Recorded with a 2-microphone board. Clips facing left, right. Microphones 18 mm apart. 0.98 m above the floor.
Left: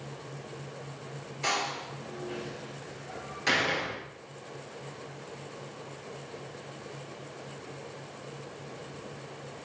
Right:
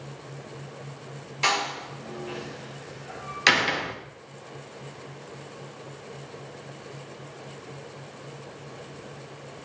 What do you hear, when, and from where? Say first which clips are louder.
1.4 s a door slam: right 5 dB; 65° right (ahead or behind), 2.5 m